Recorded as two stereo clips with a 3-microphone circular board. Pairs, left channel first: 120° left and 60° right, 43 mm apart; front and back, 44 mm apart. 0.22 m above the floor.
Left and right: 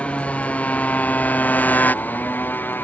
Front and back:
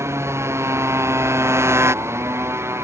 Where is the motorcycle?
Straight behind; by 2.9 s 165° left.